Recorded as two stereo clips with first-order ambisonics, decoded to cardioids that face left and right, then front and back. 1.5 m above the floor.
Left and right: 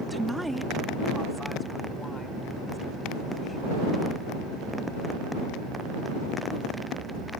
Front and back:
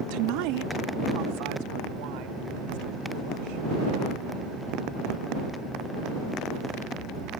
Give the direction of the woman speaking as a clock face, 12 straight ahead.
6 o'clock.